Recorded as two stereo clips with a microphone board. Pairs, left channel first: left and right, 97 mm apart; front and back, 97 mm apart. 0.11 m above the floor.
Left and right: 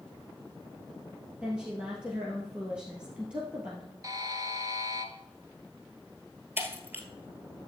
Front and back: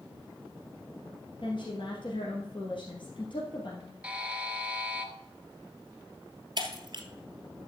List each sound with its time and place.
1.4 s a woman speaking: 10° right, 2 m
4.0 s a buzzer: 110° right, 1.1 m
6.6 s breaking glass: 155° right, 1.5 m